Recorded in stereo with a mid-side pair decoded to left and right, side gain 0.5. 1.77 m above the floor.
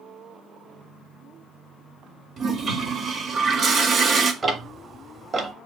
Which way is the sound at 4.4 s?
35° right.